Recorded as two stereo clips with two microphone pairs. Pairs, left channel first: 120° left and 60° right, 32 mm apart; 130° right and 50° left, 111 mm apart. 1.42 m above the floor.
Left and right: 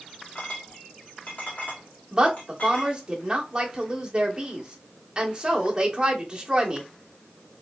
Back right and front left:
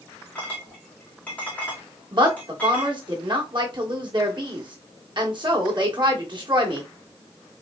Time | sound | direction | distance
0.3 | a clink | 155° left | 1.8 m
2.1 | a woman speaking | 5° left | 1.3 m